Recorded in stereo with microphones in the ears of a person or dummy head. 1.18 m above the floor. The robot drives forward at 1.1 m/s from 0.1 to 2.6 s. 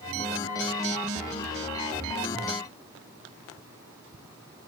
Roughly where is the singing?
I don't hear singing.